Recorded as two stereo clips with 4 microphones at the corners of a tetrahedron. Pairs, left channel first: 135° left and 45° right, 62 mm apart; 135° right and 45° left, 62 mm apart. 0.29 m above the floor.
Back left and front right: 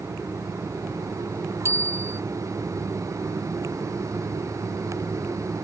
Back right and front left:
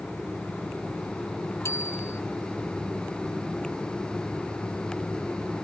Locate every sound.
1.6 s a bicycle bell: 90° right